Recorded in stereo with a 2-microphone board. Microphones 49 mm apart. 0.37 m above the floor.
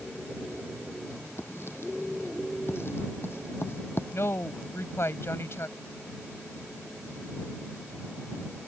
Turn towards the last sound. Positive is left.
turn(degrees=60)  # may be behind; listen again after turning